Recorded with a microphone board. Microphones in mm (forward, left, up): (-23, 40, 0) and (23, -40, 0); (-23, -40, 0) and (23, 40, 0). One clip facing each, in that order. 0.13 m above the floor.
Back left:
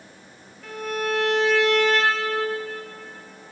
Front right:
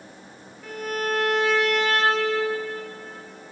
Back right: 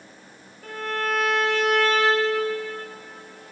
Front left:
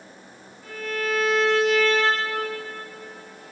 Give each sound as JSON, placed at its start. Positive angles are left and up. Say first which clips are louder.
{"t": 0.6, "sound": "a violin", "louder": "back left 1 dB, back right 1 dB", "azimuth_deg": -140, "distance_m": 3.5}